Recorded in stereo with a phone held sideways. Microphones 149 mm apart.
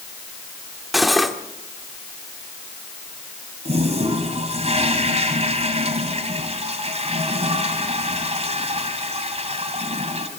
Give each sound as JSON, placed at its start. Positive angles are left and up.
{"t": 0.9, "sound": "cutlery clinking", "side_deg": 0, "distance_m": 1.5}
{"t": 3.6, "sound": "a toilet flushing", "side_deg": -45, "distance_m": 2.5}